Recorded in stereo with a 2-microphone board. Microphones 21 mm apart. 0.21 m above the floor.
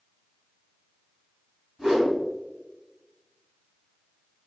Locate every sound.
1.8 s a whoosh: 25° right (ahead or behind), 1.8 m